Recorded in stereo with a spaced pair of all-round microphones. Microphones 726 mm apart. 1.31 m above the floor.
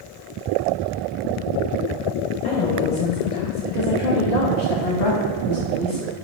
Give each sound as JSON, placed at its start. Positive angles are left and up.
{"t": 2.4, "sound": "a woman speaking", "side_deg": 70, "distance_m": 1.7}